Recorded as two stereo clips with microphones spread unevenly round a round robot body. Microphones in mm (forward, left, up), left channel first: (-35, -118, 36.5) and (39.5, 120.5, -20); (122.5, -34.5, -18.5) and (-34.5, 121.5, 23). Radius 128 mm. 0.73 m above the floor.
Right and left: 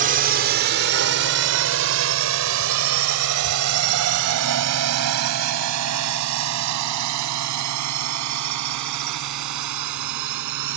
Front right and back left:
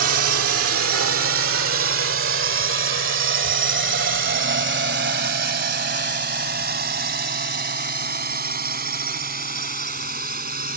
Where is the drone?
120° left; by 10.8 s 85° left.